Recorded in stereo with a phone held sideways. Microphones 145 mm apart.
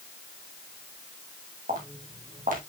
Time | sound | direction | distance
1.7 | footsteps | 70° right (ahead or behind) | 3 m